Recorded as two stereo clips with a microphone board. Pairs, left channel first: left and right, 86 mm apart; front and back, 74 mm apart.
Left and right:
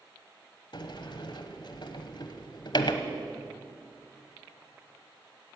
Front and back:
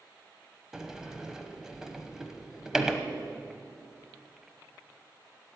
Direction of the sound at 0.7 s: 100° left.